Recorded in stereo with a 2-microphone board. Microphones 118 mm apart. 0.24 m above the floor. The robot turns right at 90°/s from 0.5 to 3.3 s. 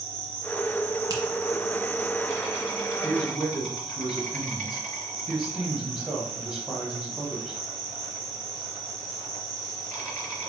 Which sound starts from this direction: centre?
A man speaking, at 3.0 s.